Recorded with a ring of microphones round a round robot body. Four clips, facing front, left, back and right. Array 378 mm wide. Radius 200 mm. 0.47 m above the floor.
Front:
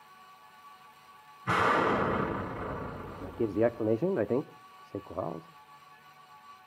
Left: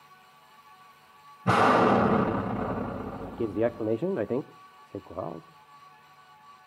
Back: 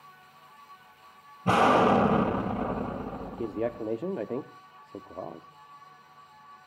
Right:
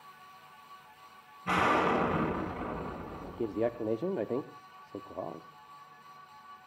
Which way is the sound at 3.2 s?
40° left.